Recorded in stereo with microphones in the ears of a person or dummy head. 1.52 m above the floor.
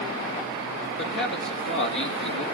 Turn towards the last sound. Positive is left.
turn(degrees=55)  # may be behind; listen again after turning